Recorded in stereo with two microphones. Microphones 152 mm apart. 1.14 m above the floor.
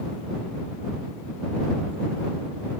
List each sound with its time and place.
Only background noise.